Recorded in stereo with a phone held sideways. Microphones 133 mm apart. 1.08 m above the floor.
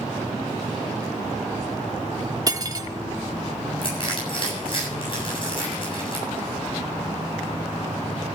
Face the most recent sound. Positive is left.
turn(degrees=40)  # may be behind; listen again after turning